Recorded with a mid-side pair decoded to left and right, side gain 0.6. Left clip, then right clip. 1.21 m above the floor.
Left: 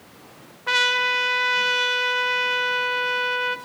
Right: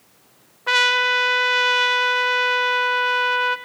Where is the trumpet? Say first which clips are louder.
Right 3 dB; 15° right, 0.6 m.